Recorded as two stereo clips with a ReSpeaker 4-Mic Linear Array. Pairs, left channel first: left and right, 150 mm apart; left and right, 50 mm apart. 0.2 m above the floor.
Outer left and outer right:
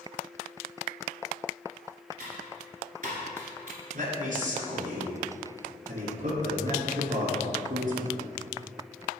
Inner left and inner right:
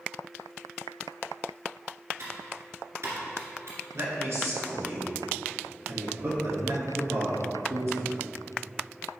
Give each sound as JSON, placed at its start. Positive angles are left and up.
{"t": 2.2, "sound": "typing on a keyboard", "side_deg": -65, "distance_m": 2.0}
{"t": 3.9, "sound": "a man speaking", "side_deg": -65, "distance_m": 2.0}